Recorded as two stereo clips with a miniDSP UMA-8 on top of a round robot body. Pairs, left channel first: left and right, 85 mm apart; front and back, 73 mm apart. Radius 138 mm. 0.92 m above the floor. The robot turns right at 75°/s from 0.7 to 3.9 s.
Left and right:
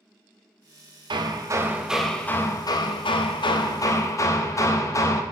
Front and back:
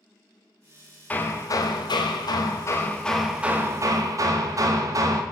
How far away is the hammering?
About 0.8 m.